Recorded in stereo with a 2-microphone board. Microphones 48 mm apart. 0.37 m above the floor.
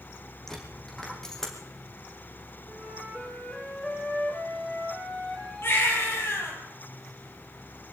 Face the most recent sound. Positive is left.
turn(degrees=50)  # may be behind; listen again after turning